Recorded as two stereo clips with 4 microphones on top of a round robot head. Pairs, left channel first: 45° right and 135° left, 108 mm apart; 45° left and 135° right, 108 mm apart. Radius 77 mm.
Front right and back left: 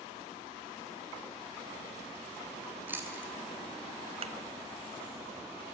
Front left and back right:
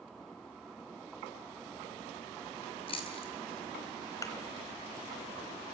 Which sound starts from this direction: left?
A thud, at 4.2 s.